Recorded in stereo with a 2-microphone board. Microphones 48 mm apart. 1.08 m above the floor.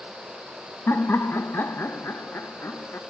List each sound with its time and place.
0.9 s laughter: 55° left (ahead or behind), 0.8 m